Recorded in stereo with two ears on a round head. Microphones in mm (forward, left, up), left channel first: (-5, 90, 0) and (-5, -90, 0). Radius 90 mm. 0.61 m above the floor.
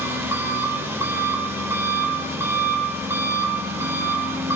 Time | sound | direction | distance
0.0 | an engine running | 15° right (ahead or behind) | 1.7 m